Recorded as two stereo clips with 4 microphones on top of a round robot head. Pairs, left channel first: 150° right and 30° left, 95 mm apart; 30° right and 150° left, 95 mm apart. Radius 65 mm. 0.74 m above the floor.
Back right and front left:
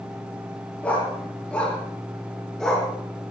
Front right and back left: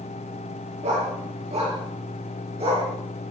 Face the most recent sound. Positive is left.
turn(degrees=125)